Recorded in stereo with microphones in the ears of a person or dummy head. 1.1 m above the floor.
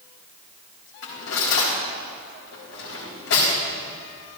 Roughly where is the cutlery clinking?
Left.